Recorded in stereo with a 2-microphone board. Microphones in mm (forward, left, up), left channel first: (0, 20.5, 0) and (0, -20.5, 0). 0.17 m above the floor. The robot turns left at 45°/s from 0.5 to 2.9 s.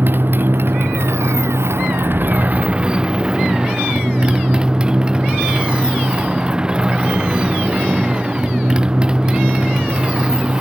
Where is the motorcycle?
50° right; by 10.6 s 160° right.